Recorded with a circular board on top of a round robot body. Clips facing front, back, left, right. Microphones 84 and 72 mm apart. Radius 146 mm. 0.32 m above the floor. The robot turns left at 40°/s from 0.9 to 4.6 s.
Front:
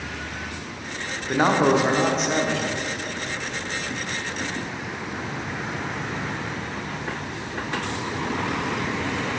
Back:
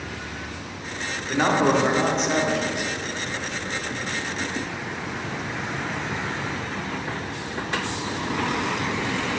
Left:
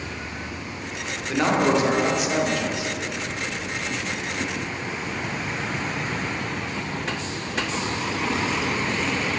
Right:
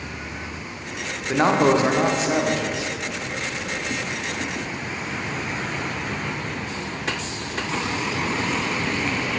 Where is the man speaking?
50° right, 1.1 m; by 2.9 s 115° right, 1.1 m.